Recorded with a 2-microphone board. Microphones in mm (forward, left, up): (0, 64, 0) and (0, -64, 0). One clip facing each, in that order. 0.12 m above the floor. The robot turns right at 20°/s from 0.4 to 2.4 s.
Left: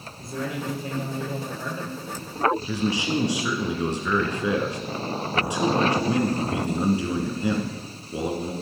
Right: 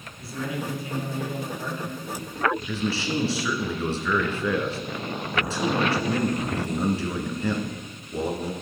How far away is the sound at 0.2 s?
About 3.5 m.